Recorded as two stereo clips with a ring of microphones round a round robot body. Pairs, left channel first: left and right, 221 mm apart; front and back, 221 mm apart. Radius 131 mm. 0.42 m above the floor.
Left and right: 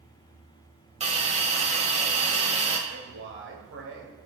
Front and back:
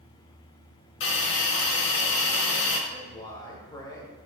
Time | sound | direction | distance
1.0 | a hiss | 30° right | 1.2 m
2.9 | a man speaking | 75° right | 1.8 m